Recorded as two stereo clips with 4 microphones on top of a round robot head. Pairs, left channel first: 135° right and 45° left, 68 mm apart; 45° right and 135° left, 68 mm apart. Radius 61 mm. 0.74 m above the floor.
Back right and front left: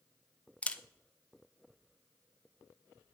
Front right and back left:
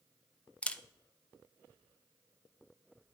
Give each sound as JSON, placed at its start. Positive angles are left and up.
{"t": 0.6, "sound": "a camera shutter", "azimuth_deg": -90, "distance_m": 0.5}